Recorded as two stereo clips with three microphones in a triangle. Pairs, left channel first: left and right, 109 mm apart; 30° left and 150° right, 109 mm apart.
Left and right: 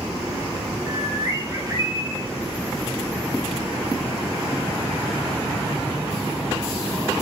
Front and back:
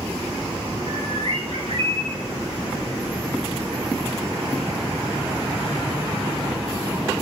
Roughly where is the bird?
Behind right.